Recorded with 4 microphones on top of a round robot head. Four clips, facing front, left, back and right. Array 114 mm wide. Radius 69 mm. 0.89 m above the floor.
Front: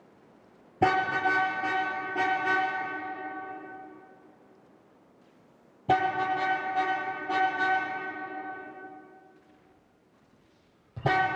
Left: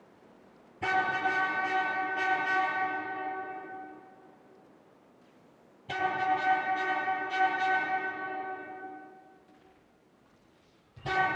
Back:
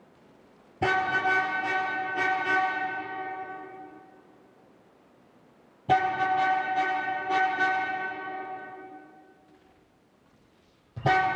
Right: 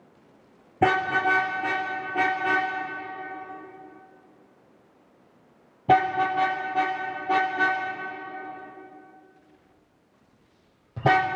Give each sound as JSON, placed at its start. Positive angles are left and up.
{"t": 0.8, "sound": "a car horn", "azimuth_deg": -65, "distance_m": 7.0}